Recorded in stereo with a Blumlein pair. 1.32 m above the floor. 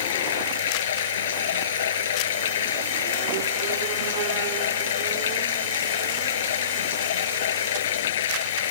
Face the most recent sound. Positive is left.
turn(degrees=60)